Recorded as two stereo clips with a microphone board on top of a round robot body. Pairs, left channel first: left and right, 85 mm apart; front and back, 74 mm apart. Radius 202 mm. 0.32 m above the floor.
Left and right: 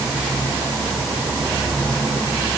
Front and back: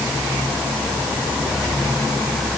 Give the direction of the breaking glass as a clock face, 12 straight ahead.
No breaking glass in this recording.